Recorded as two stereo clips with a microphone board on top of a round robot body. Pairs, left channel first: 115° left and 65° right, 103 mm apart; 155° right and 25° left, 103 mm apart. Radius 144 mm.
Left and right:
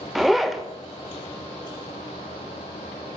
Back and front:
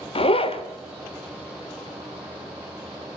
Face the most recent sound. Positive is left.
turn(degrees=-155)